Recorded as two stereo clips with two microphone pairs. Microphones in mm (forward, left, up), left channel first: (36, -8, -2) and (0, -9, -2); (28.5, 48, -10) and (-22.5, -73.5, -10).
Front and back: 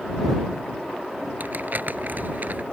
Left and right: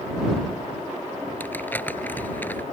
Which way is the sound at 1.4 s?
145° left.